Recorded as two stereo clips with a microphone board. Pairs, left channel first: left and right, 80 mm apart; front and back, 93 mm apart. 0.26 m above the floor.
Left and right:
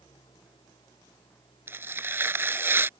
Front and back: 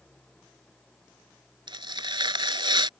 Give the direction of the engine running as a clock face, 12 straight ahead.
9 o'clock.